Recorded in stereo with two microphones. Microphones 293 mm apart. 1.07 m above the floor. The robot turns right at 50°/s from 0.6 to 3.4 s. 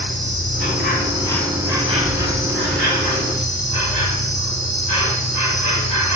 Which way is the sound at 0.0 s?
135° left.